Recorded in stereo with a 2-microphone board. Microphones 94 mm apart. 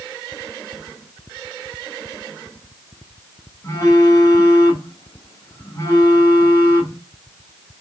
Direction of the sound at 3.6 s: 40° left (ahead or behind).